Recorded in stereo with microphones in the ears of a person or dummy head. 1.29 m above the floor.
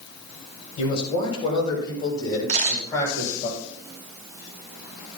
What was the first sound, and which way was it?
A man speaking, 30° left (ahead or behind).